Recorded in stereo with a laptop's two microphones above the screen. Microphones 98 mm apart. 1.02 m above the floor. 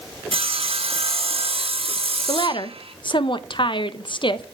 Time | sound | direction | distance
0.3 | sawing | 70° right (ahead or behind) | 1.8 m
2.3 | a woman speaking | 55° left (ahead or behind) | 0.8 m